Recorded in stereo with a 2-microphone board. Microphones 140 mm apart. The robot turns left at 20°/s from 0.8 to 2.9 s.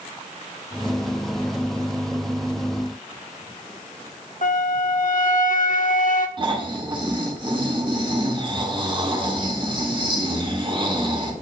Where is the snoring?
35° right (ahead or behind), 2.5 m.